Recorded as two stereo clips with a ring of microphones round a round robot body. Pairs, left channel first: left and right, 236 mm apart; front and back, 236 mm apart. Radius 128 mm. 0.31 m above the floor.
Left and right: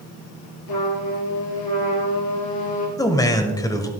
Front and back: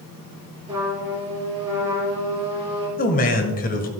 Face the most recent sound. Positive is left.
turn(degrees=25)